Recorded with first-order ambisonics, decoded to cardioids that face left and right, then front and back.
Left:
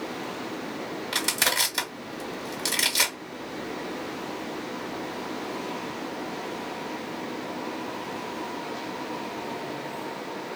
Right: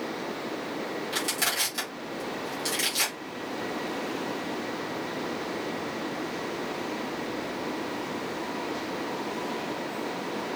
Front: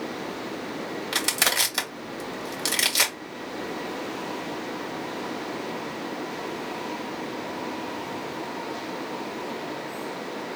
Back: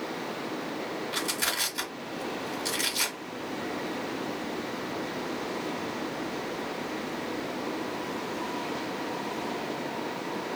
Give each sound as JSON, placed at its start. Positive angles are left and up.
{"t": 1.1, "sound": "crushing", "azimuth_deg": 25, "distance_m": 1.6}